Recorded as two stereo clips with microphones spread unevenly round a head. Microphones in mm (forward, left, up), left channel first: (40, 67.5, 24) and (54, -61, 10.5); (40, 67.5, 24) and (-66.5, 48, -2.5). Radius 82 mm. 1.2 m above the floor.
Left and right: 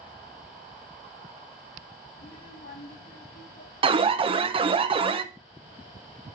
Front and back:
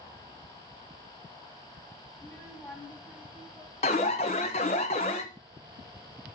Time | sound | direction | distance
2.1 | a child speaking | 80° left | 6 m
3.8 | an alarm | 40° right | 0.9 m